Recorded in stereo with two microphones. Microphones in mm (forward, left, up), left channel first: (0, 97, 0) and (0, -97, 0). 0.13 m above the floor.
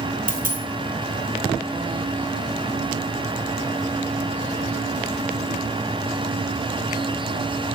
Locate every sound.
0.3 s a dropped coin: 50° right (ahead or behind), 1.3 m